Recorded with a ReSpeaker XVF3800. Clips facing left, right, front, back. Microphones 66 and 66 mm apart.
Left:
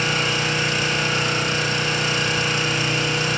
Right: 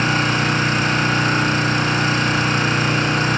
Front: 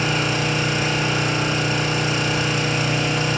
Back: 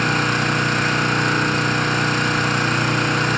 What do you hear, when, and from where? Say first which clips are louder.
0.0 s an engine running: right 4 dB, back 3 dB; 140° right, 3.5 m